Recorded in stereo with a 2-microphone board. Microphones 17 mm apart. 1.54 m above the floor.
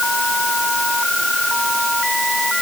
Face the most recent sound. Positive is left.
No sound to turn to.